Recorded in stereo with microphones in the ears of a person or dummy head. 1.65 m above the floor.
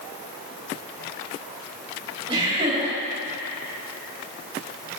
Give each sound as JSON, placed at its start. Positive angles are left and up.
{"t": 2.3, "sound": "laughter", "side_deg": -40, "distance_m": 3.0}